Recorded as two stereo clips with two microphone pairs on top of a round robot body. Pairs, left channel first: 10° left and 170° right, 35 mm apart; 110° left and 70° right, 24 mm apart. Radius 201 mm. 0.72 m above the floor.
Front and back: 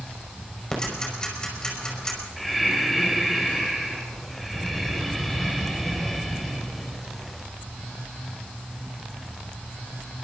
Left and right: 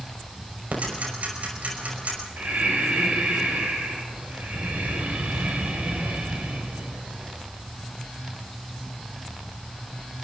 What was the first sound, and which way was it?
Ticking, 60° right.